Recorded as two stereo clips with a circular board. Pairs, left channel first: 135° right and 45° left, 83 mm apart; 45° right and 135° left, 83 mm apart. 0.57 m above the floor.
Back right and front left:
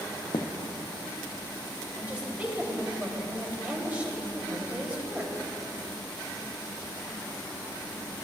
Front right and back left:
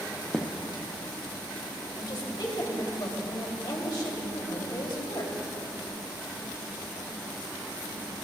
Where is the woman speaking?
25° right, 3 m.